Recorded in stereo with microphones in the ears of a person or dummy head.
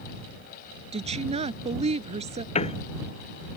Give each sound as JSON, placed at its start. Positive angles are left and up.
{"t": 0.9, "sound": "a woman speaking", "side_deg": -35}
{"t": 2.5, "sound": "a piano", "side_deg": 35}